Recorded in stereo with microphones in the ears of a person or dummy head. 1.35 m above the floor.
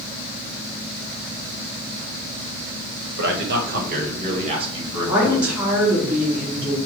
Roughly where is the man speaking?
Right.